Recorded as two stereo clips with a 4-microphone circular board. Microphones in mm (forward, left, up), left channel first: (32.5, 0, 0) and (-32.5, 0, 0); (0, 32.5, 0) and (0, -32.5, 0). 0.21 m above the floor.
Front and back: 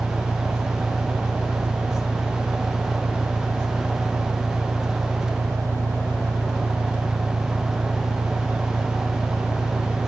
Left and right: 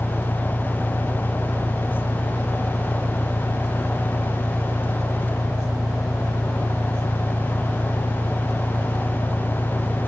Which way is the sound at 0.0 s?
140° left.